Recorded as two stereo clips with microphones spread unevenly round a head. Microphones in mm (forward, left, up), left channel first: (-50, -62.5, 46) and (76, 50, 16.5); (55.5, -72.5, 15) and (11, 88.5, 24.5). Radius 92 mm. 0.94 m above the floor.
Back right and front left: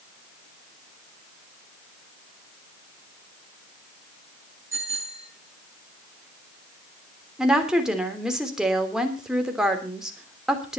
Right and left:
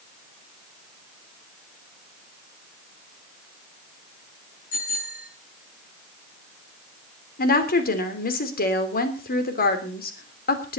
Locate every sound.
4.7 s a bicycle bell: 35° right, 9.5 m
7.4 s a woman speaking: 45° right, 3.5 m